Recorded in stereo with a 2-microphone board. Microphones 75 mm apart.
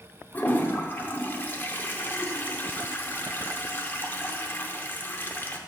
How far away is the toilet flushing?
About 0.7 m.